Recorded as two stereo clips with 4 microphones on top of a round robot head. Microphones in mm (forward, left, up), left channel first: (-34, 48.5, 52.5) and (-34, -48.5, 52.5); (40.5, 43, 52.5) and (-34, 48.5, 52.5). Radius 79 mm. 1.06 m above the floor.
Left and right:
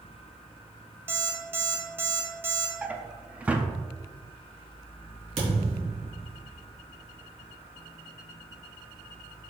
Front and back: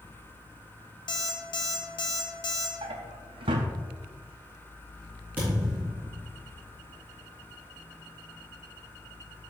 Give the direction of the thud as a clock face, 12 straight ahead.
4 o'clock.